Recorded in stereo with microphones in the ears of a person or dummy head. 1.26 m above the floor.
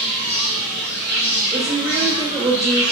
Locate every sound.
0.0 s an insect: 50° right (ahead or behind), 2.5 m
1.5 s a woman speaking: 20° right (ahead or behind), 1.4 m